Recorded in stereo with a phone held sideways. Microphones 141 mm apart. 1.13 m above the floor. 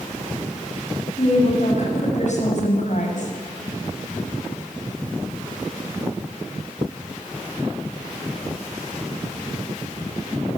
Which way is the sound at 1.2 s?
55° left (ahead or behind).